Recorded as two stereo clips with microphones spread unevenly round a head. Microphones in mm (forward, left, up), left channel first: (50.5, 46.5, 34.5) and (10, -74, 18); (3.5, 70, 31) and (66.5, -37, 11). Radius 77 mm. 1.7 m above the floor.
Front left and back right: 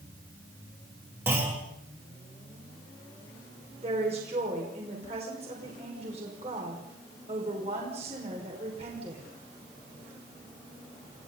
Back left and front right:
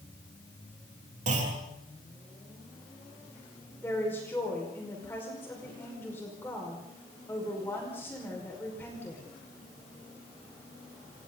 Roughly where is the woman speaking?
Behind.